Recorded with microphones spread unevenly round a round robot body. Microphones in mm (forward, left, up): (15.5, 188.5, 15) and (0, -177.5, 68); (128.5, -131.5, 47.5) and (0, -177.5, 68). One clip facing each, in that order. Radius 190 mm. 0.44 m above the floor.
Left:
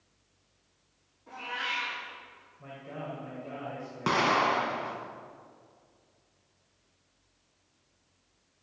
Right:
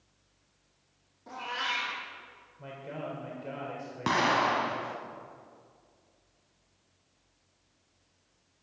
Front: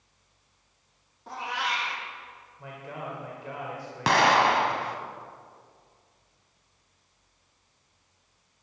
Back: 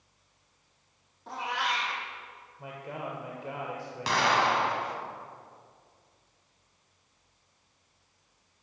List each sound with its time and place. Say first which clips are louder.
1.3 s a cat meowing: right 2 dB, even; 70° right, 4 m
2.6 s a man speaking: right 2 dB, even; 85° right, 2.5 m
4.1 s an explosion: left 1 dB, front 5 dB; 5° right, 1.2 m